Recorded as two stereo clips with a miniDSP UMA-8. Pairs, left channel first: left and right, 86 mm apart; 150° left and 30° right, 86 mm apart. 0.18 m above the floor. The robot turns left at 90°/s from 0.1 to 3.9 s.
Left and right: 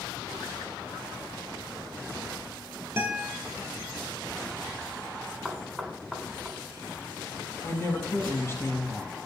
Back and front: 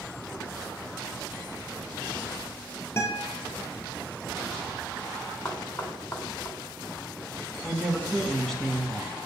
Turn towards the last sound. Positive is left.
turn(degrees=70)